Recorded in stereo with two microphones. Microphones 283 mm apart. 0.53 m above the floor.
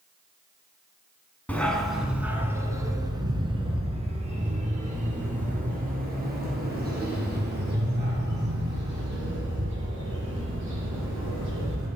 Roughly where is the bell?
I don't hear a bell.